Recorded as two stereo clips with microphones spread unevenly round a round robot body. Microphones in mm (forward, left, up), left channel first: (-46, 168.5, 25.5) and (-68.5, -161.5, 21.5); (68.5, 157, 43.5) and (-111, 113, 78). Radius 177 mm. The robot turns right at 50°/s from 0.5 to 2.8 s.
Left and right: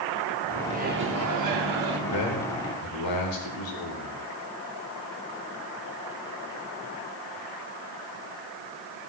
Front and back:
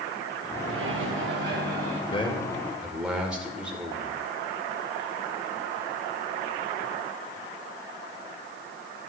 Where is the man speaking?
70° left, 2 m; by 4.2 s 105° left, 2 m.